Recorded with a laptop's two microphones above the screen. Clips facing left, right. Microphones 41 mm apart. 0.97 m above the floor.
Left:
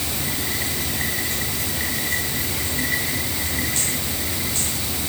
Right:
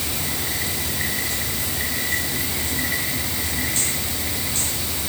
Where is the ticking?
No ticking in this recording.